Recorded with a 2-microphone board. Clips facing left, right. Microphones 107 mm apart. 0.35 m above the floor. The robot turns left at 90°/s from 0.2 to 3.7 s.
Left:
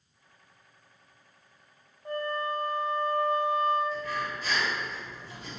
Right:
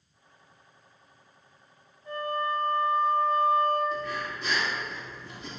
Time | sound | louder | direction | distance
2.0 | a flute | right 1 dB | 65° left | 1.0 m
3.9 | breathing | even | 80° right | 2 m